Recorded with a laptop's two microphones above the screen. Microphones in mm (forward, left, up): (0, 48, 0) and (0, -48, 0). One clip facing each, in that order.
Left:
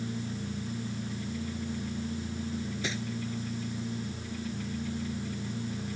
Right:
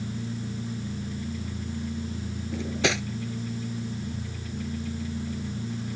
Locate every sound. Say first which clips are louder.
2.5 s cutlery clinking: right 7 dB; 75° right (ahead or behind)